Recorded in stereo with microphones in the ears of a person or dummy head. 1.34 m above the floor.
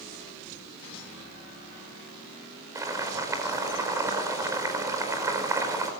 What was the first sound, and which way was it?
Boiling, 20° right (ahead or behind).